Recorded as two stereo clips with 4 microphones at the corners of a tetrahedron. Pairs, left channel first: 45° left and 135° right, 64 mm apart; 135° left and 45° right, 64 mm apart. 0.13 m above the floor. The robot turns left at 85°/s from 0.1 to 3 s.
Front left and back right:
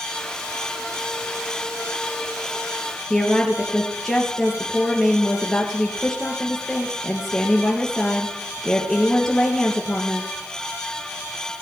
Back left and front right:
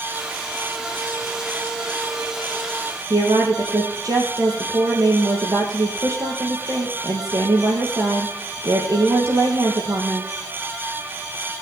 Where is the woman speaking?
40° right, 3 m.